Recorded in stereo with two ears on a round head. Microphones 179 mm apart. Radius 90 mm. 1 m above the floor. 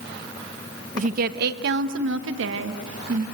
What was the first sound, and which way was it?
A woman speaking, 35° right (ahead or behind).